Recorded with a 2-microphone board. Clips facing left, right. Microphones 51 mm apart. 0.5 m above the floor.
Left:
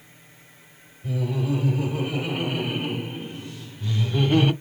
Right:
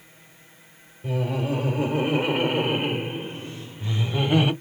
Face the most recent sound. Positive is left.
turn(degrees=-10)  # may be behind; listen again after turning